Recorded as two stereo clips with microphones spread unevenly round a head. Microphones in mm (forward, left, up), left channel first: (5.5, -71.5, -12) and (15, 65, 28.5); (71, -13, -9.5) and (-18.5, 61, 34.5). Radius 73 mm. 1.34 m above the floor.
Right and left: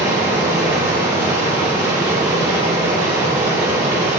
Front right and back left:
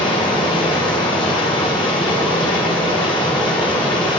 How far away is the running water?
About 5.5 m.